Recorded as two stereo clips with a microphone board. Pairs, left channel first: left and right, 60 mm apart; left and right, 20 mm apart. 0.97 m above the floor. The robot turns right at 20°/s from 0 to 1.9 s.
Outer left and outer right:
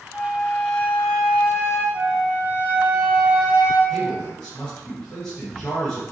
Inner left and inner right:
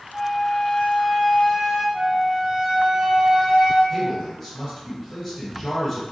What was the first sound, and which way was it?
A flute, 15° left.